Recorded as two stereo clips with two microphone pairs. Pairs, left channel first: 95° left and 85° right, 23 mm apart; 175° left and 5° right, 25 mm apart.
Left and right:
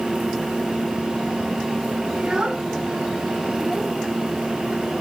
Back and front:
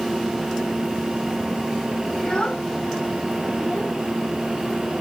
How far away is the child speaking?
About 1.9 m.